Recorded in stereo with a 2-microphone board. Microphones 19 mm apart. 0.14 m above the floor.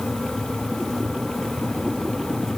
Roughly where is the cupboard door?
No cupboard door in this recording.